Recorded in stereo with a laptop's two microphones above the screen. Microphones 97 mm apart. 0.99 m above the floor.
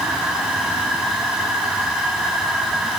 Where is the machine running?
10° right (ahead or behind), 6.5 m.